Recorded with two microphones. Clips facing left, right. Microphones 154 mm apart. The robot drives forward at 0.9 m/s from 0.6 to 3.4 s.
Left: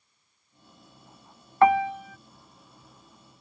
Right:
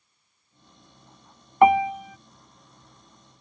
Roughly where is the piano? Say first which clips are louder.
Right 3 dB; centre.